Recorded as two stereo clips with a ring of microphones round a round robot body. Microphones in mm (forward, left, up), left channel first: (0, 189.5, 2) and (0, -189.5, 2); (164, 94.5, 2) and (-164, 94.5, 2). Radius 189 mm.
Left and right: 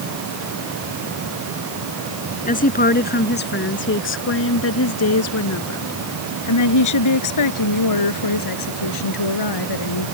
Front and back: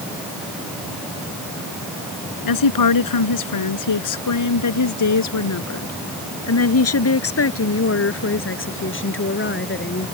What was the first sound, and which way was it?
A woman speaking, 20° left.